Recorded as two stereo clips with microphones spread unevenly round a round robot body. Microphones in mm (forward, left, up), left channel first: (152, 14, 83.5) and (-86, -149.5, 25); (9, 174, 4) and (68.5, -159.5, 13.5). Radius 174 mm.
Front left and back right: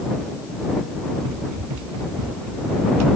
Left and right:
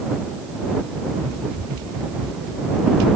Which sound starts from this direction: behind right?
Running footsteps, at 1.2 s.